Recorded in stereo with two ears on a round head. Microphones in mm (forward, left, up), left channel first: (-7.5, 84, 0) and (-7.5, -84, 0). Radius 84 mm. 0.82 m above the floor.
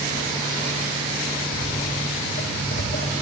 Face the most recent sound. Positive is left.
turn(degrees=35)  # may be behind; listen again after turning